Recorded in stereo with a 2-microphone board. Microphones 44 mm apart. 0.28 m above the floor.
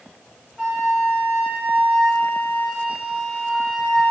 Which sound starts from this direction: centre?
A flute, at 0.6 s.